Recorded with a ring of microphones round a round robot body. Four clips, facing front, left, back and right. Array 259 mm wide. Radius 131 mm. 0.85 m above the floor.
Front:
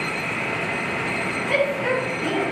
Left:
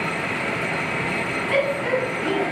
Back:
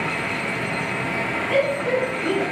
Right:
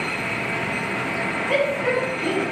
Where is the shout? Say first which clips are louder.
Even, back 1 dB; 65° right, 6 m.